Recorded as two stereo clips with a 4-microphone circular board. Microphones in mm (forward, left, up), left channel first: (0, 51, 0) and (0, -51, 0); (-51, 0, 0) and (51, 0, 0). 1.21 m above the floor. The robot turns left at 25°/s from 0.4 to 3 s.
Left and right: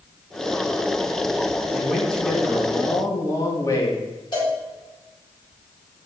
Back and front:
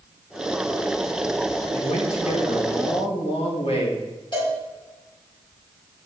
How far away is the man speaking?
About 2 m.